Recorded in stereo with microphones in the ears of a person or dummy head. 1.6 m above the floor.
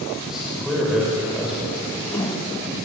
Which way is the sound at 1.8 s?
15° left (ahead or behind).